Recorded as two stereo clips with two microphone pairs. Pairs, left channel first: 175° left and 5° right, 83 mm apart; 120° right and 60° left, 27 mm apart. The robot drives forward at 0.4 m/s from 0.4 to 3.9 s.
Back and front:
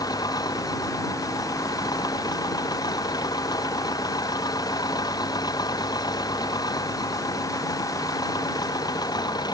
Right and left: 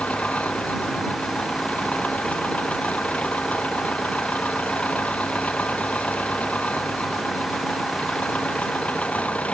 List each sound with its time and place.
0.0 s an engine running: 150° right